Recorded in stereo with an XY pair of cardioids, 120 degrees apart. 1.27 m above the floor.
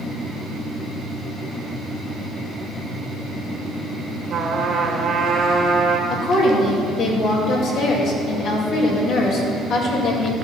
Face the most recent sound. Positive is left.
turn(degrees=60)